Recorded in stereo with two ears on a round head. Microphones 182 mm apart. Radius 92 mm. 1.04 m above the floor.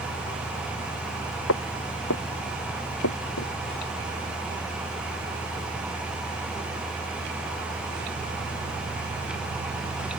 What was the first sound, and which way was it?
Footsteps, 75° left (ahead or behind).